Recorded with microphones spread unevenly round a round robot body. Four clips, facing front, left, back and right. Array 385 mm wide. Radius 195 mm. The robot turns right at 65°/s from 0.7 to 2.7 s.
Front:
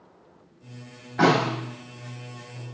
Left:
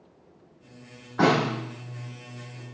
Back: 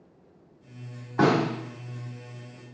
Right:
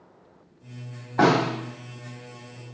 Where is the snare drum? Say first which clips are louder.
Right 2 dB, front 2 dB; 135° right, 1.9 m; by 1.5 s 110° right, 1.9 m.